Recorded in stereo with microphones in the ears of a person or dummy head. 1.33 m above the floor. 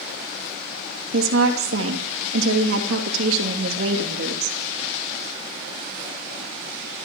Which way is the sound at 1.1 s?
80° right.